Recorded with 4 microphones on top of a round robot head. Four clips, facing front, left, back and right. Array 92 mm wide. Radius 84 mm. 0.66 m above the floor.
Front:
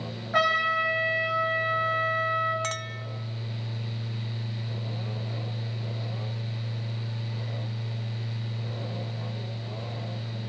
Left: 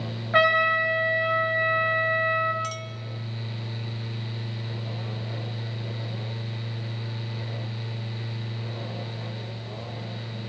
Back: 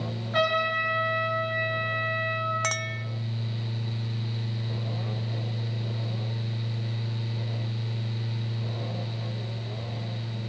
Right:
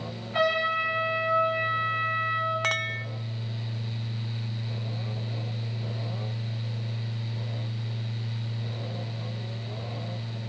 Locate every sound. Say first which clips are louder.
0.3 s a trumpet: left 5 dB, front 1 dB; 70° left, 5 m
2.6 s a clink: right 5 dB, back 2 dB; 110° right, 0.6 m